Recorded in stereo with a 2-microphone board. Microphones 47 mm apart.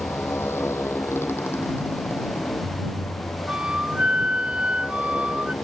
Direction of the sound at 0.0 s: 65° left (ahead or behind).